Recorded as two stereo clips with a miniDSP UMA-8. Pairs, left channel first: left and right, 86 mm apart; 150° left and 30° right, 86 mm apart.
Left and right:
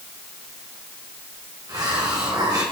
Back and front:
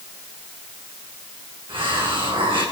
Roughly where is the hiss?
Ahead right.